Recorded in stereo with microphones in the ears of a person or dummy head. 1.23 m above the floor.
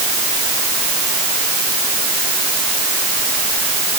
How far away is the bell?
No bell in this recording.